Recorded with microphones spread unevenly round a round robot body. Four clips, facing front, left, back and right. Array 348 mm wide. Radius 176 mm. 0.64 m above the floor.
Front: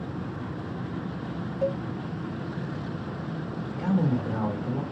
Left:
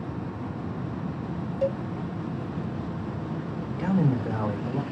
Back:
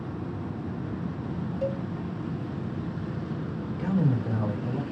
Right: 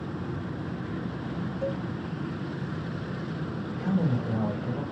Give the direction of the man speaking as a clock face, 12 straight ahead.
9 o'clock.